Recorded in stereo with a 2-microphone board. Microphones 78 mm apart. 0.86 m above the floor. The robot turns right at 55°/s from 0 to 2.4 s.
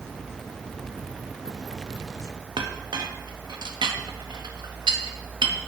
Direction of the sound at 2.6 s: 75° right (ahead or behind).